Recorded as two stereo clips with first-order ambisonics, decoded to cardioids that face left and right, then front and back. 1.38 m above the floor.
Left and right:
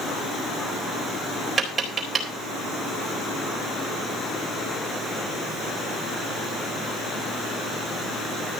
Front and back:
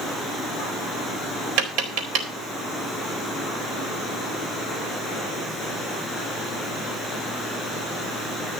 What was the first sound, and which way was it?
Tapping, 165° right.